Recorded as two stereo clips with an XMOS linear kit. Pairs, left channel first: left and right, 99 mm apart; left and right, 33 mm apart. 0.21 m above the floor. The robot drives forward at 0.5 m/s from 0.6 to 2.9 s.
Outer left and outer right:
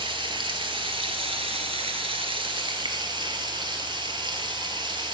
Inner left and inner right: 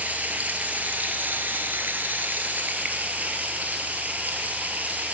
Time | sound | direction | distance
0.0 | running water | 60° right (ahead or behind) | 1.0 m